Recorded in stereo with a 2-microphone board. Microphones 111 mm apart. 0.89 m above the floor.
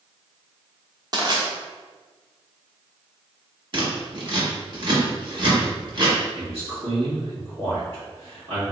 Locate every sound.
1.1 s crushing: 40° right (ahead or behind), 0.9 m
3.7 s scissors: 50° right (ahead or behind), 1.3 m
6.3 s a man speaking: 65° right (ahead or behind), 1.8 m